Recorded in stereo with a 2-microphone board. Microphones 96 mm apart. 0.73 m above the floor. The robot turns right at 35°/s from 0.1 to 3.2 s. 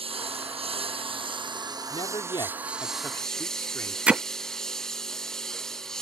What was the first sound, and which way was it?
A lawn mower, 100° right.